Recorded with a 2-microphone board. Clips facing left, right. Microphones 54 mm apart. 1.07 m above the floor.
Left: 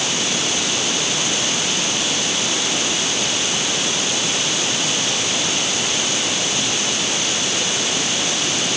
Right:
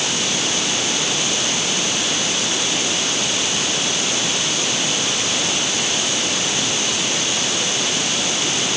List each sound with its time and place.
Only background noise.